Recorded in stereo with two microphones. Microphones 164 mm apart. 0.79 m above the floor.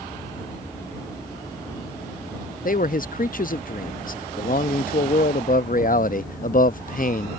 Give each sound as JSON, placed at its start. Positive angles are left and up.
{"t": 2.6, "sound": "a man speaking", "side_deg": 55}